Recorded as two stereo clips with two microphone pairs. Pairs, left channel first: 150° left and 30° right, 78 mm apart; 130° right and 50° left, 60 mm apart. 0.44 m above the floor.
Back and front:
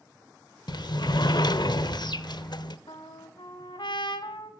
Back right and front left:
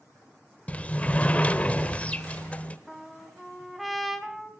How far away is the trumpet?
About 1.4 m.